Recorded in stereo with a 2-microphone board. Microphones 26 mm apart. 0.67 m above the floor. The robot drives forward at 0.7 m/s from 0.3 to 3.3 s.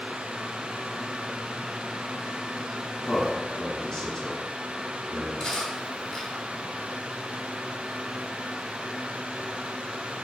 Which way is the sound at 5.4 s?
35° left (ahead or behind).